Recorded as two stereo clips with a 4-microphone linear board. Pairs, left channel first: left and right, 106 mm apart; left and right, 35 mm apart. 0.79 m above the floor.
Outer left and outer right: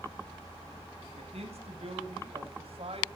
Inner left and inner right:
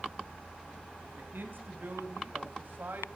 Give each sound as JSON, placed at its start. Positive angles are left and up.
{"t": 1.1, "sound": "a man speaking", "side_deg": -75, "distance_m": 4.5}